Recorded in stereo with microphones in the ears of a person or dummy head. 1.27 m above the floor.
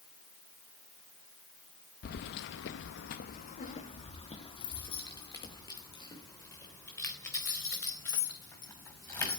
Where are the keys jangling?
50° left (ahead or behind), 0.8 m; by 9.4 s 20° left (ahead or behind), 5 m.